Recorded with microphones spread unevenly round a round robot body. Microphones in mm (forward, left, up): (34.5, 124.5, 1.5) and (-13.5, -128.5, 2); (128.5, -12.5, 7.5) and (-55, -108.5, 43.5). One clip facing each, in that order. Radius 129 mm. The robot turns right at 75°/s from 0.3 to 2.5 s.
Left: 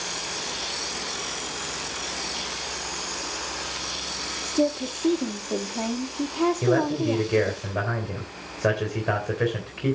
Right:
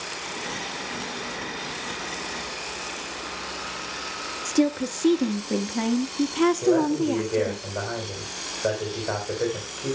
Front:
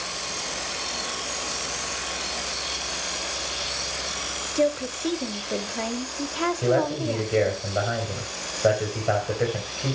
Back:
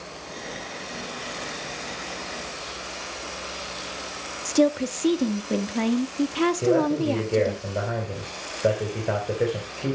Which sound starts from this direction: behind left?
A man speaking, at 6.6 s.